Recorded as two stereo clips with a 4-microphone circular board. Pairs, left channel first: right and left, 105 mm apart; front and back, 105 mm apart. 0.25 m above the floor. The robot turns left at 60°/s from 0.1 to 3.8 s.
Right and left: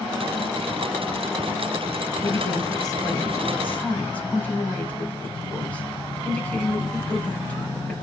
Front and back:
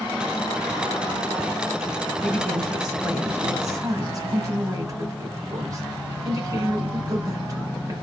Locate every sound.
2.2 s a woman speaking: 60° right, 1.2 m; by 8.0 s 155° right, 1.2 m